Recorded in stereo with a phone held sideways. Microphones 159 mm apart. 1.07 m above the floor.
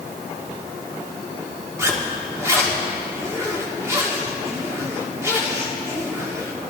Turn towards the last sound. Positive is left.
turn(degrees=-20)  # may be behind; listen again after turning